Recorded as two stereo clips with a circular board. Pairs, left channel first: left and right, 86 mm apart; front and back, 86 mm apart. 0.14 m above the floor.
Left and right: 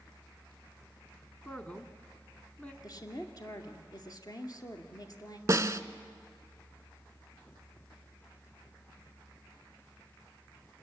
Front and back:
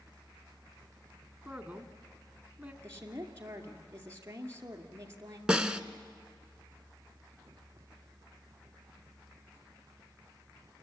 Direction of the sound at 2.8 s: 125° left.